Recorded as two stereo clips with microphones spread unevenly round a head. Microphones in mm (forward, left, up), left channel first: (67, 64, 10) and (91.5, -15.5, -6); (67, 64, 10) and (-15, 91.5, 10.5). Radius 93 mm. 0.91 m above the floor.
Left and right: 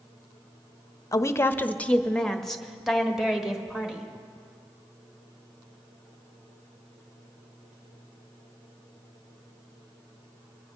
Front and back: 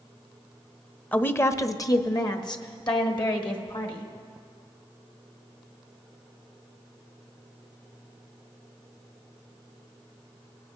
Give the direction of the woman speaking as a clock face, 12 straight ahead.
10 o'clock.